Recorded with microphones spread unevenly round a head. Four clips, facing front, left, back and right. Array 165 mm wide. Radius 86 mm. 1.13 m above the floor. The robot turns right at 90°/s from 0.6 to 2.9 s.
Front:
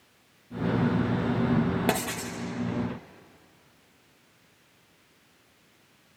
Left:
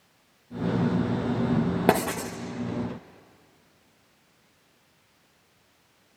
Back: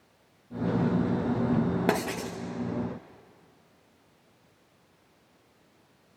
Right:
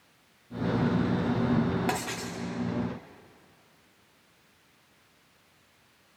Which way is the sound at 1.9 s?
95° left.